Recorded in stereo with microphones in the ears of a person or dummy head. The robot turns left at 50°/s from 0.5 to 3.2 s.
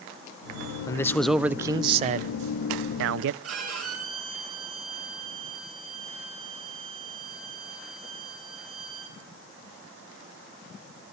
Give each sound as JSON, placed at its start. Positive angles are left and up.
{"t": 0.9, "sound": "a man speaking", "azimuth_deg": 25, "distance_m": 0.6}
{"t": 3.4, "sound": "a violin", "side_deg": -75, "distance_m": 4.5}